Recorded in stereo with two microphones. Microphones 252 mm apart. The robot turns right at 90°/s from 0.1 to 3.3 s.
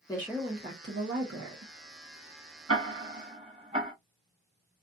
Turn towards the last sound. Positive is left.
turn(degrees=-20)  # may be behind; listen again after turning